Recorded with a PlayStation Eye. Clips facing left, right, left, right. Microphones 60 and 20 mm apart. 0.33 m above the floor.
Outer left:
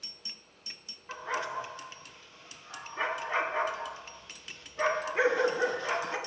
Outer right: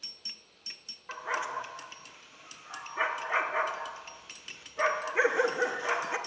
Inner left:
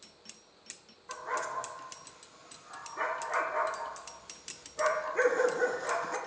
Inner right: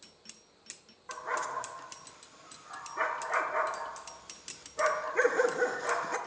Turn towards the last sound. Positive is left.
turn(degrees=-15)  # may be behind; listen again after turning